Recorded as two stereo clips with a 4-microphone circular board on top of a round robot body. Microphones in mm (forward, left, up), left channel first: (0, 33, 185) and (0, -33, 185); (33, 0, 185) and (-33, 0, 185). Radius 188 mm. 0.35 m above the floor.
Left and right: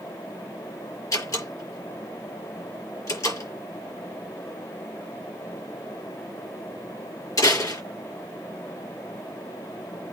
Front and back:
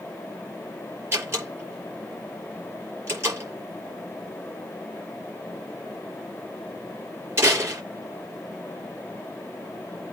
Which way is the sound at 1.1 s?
125° left.